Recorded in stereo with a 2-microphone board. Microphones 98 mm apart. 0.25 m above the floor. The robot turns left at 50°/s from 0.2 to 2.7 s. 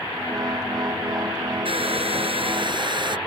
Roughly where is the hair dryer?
Right.